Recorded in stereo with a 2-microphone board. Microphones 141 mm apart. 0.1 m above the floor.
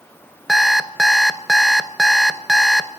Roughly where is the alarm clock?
Centre.